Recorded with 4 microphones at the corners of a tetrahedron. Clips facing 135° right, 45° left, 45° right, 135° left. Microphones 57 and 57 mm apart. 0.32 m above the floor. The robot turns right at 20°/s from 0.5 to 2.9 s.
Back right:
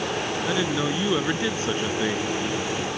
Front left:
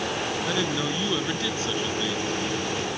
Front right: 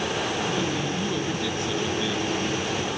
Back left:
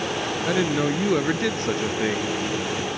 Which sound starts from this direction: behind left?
A man speaking, at 0.5 s.